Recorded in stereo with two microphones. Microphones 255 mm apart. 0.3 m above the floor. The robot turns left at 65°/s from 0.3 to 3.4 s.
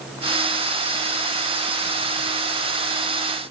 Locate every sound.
Only background noise.